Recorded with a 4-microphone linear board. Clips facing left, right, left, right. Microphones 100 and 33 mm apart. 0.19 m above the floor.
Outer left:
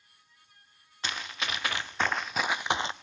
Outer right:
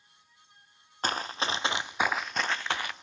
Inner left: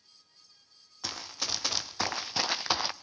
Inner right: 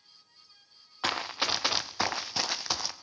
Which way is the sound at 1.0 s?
45° right (ahead or behind).